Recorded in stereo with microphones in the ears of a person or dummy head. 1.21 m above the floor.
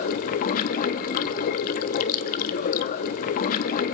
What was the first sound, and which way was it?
Running water, 50° left (ahead or behind).